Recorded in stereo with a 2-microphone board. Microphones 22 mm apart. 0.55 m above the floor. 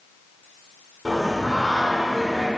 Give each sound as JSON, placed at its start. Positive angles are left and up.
{"t": 1.1, "sound": "singing", "side_deg": 5, "distance_m": 1.7}